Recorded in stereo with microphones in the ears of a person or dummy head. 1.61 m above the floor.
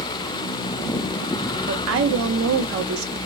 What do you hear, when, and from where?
1.7 s a woman speaking: 80° right, 1.2 m